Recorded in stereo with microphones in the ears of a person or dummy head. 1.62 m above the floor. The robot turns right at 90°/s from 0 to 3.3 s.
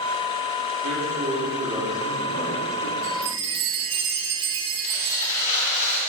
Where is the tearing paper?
40° left (ahead or behind), 5 m.